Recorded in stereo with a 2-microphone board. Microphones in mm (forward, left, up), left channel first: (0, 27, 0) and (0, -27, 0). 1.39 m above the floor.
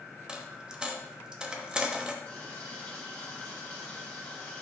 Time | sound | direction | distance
0.3 | a dropped coin | 15° right (ahead or behind) | 0.8 m
2.2 | a running tap | 20° left (ahead or behind) | 2.5 m